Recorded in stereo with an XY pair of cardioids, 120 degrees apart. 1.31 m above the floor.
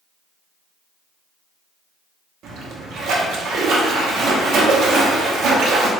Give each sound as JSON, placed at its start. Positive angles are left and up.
{"t": 2.4, "sound": "a splash", "azimuth_deg": -70, "distance_m": 0.9}